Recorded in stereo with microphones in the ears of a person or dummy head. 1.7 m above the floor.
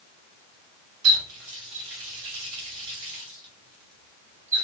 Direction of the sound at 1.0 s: 65° right (ahead or behind).